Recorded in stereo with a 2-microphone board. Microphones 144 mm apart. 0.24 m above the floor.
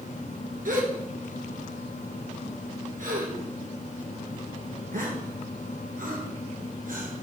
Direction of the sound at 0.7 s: 75° right (ahead or behind).